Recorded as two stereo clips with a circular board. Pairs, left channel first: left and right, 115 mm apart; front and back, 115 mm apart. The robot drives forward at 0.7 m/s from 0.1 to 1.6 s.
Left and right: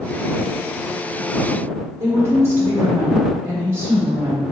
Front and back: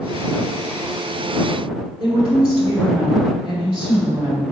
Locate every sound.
2.0 s a woman speaking: 155° right, 1.6 m